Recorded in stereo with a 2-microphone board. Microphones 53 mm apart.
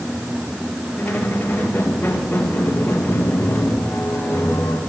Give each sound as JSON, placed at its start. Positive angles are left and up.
{"t": 1.0, "sound": "a squeak", "side_deg": 30, "distance_m": 2.5}